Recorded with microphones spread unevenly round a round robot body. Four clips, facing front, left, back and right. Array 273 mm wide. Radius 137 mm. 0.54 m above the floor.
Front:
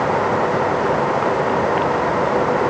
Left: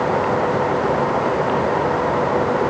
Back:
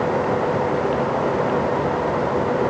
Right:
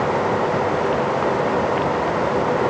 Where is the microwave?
I don't hear a microwave.